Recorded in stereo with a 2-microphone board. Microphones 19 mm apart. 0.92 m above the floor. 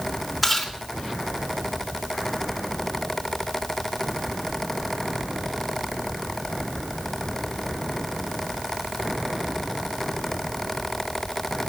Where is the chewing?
5° right (ahead or behind), 3 m.